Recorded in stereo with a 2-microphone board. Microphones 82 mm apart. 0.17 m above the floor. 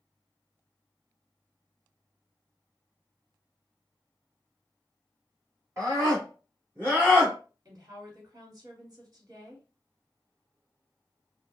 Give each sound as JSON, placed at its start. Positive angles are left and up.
{"t": 5.8, "sound": "a scream", "side_deg": -35, "distance_m": 1.6}
{"t": 7.7, "sound": "a woman speaking", "side_deg": -45, "distance_m": 1.4}